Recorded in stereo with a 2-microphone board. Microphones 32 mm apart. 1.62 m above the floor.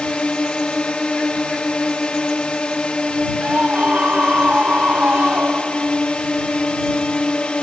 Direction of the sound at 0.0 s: 40° left (ahead or behind).